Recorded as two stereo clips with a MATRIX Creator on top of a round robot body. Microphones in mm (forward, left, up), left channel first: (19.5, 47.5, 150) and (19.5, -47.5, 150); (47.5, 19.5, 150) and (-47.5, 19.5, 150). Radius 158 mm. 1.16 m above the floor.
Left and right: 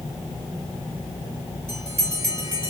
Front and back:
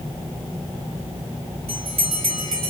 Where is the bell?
155° right, 1.4 m.